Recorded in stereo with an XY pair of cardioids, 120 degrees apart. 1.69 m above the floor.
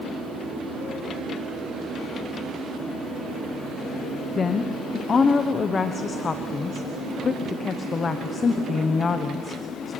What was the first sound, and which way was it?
A woman speaking, 35° left.